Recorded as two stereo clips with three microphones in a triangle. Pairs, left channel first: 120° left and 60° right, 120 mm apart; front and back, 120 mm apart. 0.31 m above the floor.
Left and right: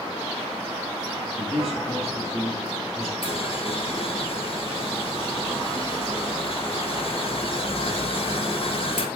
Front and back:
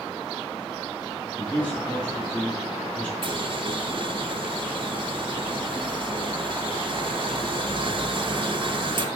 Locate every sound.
1.4 s a man speaking: 80° right, 4 m
3.2 s boiling: 145° left, 1.2 m